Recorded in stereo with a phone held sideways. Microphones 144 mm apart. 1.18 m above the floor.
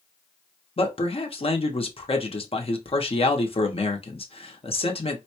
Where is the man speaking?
40° left (ahead or behind), 0.7 m.